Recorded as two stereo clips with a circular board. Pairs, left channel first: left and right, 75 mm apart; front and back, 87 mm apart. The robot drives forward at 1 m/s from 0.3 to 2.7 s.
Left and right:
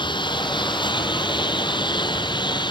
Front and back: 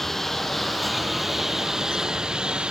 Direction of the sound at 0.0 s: 85° left.